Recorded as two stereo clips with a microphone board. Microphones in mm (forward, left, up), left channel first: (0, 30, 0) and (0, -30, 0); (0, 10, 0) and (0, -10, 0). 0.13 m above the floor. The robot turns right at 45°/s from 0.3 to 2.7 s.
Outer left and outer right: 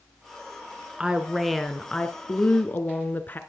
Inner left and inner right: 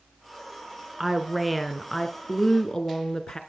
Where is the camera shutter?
No camera shutter in this recording.